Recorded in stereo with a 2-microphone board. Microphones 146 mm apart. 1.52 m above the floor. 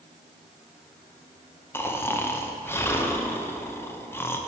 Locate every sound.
1.7 s snoring: 15° left (ahead or behind), 0.6 m